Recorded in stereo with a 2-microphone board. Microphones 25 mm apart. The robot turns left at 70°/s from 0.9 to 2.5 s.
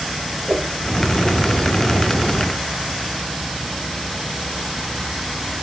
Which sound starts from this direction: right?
A whoosh, at 0.5 s.